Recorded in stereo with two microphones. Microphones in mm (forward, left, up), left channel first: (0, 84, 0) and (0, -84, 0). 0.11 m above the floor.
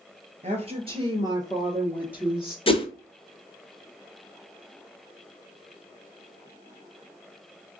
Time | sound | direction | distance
0.4 | a woman speaking | 45° right (ahead or behind) | 1.7 m
2.7 | a whoosh | 35° left (ahead or behind) | 0.8 m